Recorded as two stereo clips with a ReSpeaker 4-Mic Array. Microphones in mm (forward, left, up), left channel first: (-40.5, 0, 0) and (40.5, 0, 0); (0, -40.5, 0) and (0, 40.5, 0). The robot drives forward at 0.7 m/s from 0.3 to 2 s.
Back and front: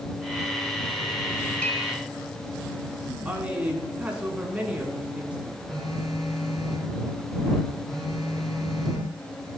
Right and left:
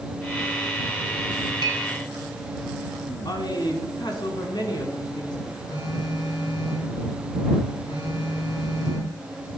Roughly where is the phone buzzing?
Right.